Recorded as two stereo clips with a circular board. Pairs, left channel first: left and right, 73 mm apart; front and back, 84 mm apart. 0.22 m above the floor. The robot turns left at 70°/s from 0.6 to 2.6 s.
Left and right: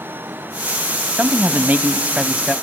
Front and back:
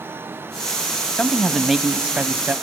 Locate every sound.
1.2 s a man speaking: 60° right, 1.0 m; by 2.5 s 155° right, 1.0 m